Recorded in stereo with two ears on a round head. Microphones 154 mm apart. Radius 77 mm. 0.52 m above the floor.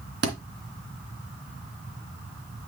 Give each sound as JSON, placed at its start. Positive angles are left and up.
{"t": 0.2, "sound": "a thud", "side_deg": -75, "distance_m": 2.5}